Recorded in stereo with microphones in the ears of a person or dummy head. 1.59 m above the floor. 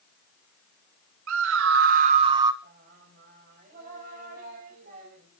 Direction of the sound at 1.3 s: 75° right (ahead or behind).